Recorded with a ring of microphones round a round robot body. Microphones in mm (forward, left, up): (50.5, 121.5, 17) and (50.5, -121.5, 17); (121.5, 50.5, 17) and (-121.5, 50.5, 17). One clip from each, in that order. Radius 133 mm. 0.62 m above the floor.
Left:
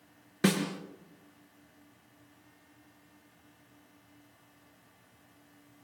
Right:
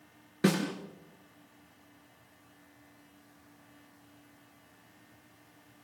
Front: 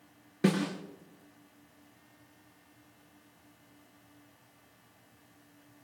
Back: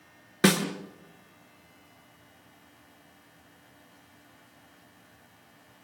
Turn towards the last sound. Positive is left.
turn(degrees=165)